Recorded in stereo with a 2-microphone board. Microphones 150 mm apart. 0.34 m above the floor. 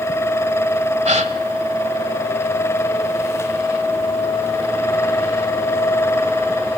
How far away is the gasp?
About 1.0 m.